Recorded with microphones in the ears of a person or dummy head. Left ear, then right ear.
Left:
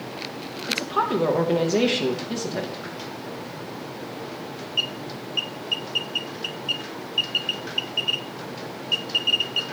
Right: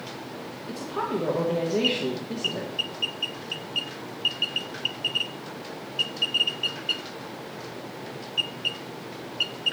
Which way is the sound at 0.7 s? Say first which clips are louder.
Left 7 dB; 30° left (ahead or behind).